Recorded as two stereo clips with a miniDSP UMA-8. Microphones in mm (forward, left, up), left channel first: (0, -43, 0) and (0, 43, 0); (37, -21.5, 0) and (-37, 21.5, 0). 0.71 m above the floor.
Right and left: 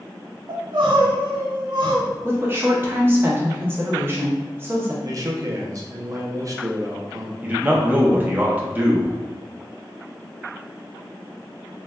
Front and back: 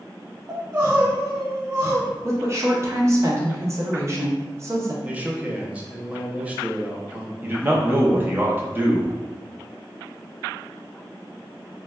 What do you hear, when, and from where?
0.5 s crying: 90° left, 1.1 m
2.2 s a woman speaking: 130° left, 0.7 m
5.0 s a man speaking: 85° left, 0.5 m
7.4 s a man speaking: 130° left, 0.6 m